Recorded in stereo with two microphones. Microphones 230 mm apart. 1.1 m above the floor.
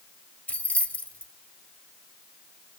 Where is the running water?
I don't hear running water.